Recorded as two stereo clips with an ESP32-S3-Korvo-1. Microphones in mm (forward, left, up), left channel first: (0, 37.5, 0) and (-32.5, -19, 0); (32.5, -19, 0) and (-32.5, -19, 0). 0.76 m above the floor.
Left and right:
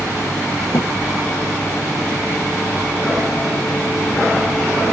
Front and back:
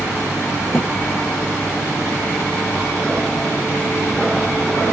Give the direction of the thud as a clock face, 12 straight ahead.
10 o'clock.